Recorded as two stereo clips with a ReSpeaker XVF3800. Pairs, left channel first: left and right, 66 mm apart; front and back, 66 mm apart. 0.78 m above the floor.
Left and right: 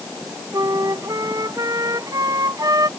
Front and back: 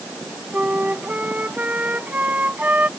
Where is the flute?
115° right.